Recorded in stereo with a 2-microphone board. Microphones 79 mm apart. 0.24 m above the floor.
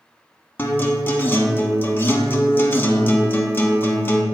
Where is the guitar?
25° left (ahead or behind), 0.7 m.